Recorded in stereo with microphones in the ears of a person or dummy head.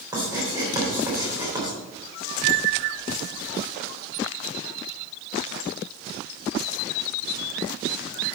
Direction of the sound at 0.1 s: 20° right (ahead or behind).